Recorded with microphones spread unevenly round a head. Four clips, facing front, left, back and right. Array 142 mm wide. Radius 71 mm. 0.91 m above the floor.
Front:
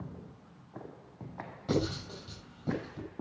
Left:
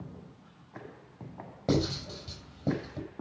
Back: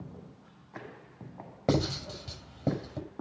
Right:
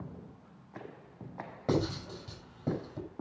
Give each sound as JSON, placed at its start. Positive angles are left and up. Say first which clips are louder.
{"t": 1.7, "sound": "writing", "louder": "left 2 dB, back 3 dB", "azimuth_deg": 170, "distance_m": 5.5}